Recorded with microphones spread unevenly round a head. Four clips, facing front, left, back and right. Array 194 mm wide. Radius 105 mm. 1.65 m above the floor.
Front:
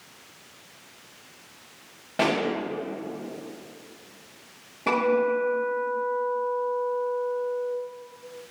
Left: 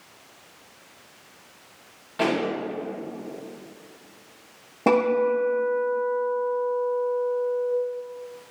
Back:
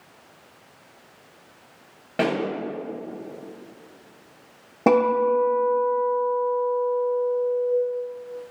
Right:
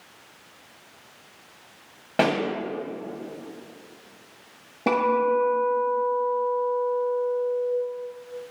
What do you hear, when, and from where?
2.2 s a pop: 120° right, 2.5 m
4.9 s a guitar: 165° left, 2.0 m